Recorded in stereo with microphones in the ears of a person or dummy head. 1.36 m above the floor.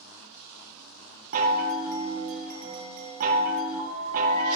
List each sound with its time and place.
1.3 s a chime: 45° right (ahead or behind), 1.0 m